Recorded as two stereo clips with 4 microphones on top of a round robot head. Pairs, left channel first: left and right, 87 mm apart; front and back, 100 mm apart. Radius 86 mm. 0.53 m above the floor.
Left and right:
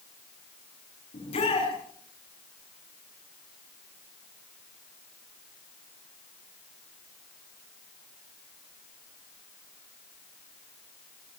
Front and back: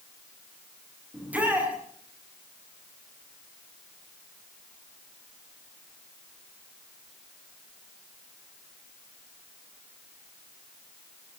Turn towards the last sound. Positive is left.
turn(degrees=105)